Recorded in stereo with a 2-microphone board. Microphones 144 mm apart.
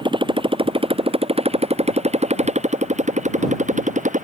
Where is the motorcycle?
35° right (ahead or behind); by 4.2 s 60° right (ahead or behind).